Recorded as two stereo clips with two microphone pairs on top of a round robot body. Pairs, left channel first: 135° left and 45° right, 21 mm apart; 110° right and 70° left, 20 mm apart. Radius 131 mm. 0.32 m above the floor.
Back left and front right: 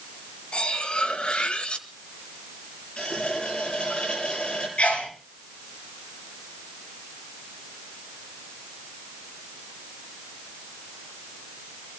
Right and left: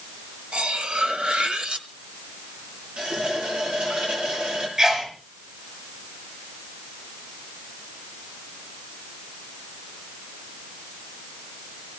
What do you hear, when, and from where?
0.5 s cutlery clinking: 100° left, 1.9 m
3.0 s a running tap: 95° left, 6.5 m
4.8 s a sneeze: 125° left, 6.5 m